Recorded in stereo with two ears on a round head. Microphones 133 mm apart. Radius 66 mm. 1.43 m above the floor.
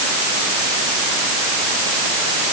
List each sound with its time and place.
Only background noise.